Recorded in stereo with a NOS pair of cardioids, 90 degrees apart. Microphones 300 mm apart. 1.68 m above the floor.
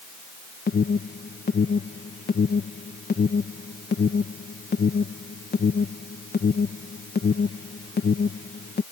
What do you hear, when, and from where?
0.7 s an alarm: 35° left